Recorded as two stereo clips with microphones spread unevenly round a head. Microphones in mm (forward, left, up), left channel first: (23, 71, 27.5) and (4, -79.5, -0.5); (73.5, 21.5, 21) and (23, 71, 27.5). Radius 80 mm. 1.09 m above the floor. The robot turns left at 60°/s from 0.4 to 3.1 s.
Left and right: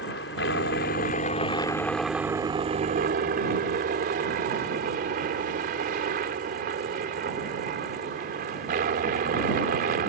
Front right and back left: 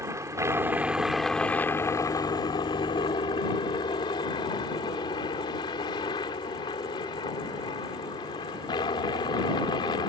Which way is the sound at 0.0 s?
90° left.